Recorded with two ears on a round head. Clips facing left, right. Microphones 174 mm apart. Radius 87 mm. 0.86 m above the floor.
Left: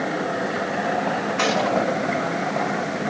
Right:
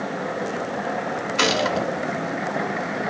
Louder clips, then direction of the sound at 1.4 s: Left 1 dB; 45° right (ahead or behind).